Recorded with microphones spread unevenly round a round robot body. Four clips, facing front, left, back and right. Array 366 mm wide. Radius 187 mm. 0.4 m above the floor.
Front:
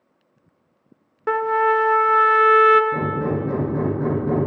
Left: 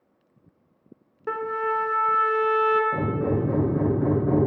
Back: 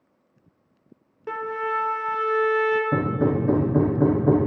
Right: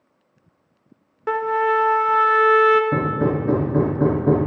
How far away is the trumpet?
About 1.4 m.